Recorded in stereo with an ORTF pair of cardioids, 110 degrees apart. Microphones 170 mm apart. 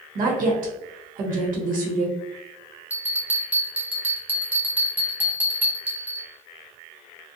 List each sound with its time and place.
0.1 s a woman speaking: 55° right, 1.0 m
2.9 s a bell: 10° right, 0.8 m